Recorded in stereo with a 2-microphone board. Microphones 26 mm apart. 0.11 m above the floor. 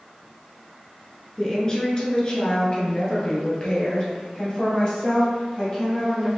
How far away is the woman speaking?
About 1.2 m.